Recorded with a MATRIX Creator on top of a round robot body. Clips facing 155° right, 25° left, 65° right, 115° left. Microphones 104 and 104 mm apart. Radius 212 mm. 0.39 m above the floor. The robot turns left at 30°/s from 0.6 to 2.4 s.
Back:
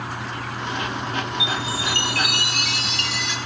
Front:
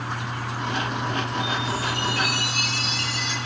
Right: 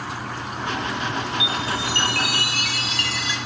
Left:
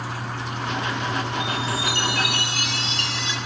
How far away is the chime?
About 2 m.